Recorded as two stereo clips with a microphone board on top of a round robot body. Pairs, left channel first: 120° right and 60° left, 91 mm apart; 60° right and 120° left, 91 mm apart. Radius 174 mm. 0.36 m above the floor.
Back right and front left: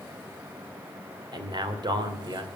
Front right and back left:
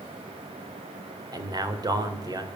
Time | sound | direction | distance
1.3 | a man speaking | 85° left | 2.5 m